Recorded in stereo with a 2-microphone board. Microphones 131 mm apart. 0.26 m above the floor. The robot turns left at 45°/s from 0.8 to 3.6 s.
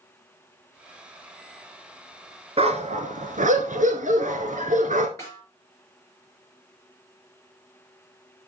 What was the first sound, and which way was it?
A dog barking, 50° right.